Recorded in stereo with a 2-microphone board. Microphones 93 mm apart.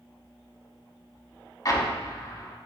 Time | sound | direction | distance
1.6 | an explosion | 40° left (ahead or behind) | 0.6 m